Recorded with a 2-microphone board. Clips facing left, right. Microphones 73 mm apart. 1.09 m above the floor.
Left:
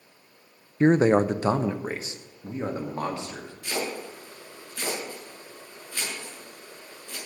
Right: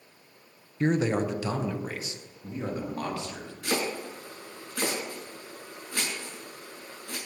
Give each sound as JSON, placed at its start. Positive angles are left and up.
{"t": 0.8, "sound": "a man speaking", "side_deg": 30, "distance_m": 0.5}
{"t": 3.6, "sound": "chopping", "side_deg": -70, "distance_m": 6.0}